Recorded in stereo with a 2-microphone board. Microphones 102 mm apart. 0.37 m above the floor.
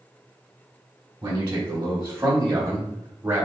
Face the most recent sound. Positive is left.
turn(degrees=-20)  # may be behind; listen again after turning